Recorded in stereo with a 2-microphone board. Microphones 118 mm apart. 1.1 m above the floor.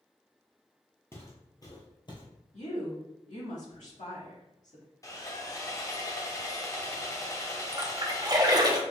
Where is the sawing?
30° left (ahead or behind), 0.7 m.